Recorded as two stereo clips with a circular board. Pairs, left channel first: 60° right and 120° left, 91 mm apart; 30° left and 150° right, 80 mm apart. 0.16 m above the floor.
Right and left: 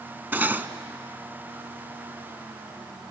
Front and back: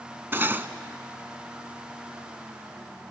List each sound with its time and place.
0.3 s cutlery clinking: 175° left, 0.7 m